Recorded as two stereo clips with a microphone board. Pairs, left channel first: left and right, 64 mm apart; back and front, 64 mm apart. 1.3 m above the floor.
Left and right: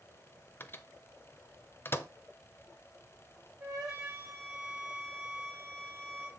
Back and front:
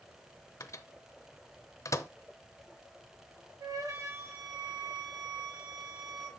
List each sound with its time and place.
0.6 s a microwave: 145° left, 0.6 m
3.6 s a flute: 10° right, 2.5 m